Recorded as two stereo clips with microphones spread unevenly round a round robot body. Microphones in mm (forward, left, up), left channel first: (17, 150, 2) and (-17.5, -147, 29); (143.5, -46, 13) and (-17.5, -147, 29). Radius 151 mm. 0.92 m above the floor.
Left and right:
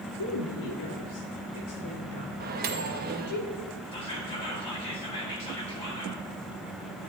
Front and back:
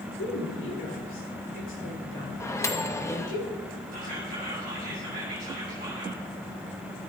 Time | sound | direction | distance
0.2 | a woman speaking | 70° left | 1.8 m
2.4 | a microwave | 40° right | 0.8 m
3.9 | whispering | 155° left | 3.5 m